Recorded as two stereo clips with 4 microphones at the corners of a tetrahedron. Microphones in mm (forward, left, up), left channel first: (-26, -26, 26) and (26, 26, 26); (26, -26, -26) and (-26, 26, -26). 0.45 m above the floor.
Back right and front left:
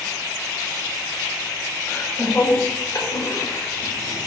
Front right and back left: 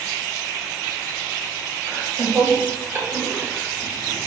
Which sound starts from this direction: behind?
Laughter, at 1.9 s.